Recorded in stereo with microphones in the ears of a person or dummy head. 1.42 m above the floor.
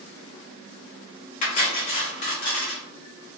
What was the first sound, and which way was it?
Cutlery clinking, 40° left (ahead or behind).